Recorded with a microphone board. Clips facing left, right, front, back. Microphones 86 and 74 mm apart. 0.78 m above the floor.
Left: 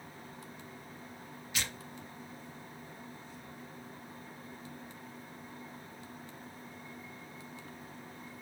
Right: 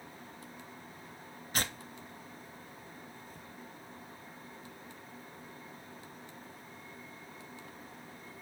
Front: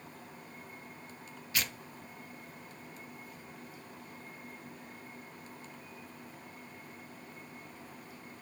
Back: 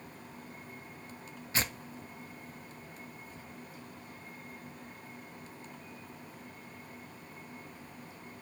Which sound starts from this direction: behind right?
Tearing paper, at 1.5 s.